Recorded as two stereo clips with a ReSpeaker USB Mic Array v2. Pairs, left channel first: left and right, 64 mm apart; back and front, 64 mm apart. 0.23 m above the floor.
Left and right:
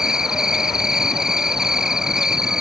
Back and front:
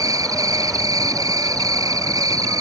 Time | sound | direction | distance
0.0 | an insect | 10° right | ?